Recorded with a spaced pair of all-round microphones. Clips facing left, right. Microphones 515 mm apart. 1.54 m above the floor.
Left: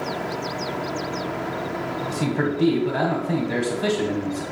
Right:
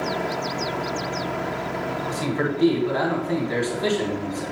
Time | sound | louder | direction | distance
2.1 | a man speaking | left 2 dB | 60° left (ahead or behind) | 1.4 m